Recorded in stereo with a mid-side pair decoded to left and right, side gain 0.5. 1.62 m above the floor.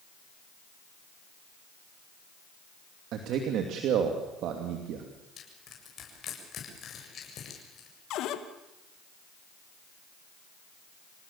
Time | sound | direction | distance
3.1 | a man speaking | 70° right | 2.5 m
5.4 | crushing | 50° left | 7.5 m
8.1 | a cupboard door | 70° left | 2 m